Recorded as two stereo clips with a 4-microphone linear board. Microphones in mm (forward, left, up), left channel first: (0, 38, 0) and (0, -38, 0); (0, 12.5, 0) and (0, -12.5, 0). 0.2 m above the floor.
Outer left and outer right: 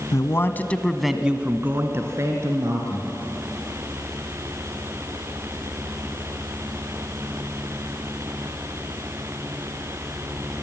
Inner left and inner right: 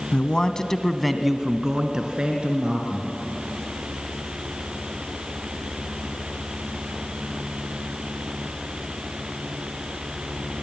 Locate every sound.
0.1 s a man speaking: 45° left (ahead or behind), 1.4 m; by 3.1 s 50° right (ahead or behind), 3 m